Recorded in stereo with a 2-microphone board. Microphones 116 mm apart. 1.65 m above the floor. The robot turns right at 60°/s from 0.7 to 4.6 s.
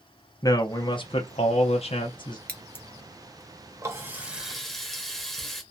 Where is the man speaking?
35° left, 0.5 m; by 2.4 s 135° left, 0.5 m.